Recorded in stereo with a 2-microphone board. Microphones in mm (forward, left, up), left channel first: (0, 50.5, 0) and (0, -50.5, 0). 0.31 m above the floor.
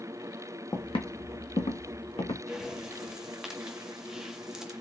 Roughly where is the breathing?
Centre.